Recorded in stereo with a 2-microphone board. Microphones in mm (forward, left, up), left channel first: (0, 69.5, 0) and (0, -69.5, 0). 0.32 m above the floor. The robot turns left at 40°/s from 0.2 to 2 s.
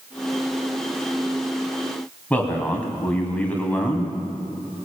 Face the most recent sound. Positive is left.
turn(degrees=10)  # may be behind; listen again after turning